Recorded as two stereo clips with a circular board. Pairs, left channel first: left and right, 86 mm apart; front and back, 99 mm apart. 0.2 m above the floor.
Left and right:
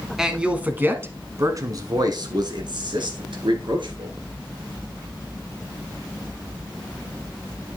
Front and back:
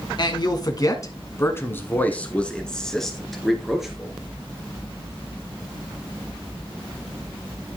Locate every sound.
0.2 s a man speaking: 5° right, 1.7 m; by 4.2 s 95° right, 3.5 m